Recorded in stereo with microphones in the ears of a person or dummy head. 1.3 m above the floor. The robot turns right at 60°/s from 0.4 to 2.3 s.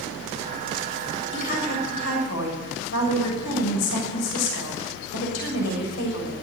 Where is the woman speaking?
45° left, 6.5 m; by 6.3 s 105° left, 6.5 m.